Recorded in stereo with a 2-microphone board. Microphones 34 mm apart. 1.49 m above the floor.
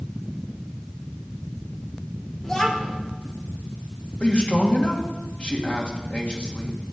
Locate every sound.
2.4 s a child speaking: 20° left (ahead or behind), 3 m
4.2 s a man speaking: 45° left (ahead or behind), 2.5 m